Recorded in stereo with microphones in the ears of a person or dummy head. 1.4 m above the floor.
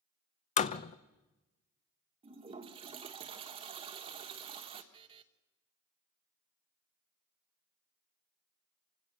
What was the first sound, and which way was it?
A door slam, 40° left (ahead or behind).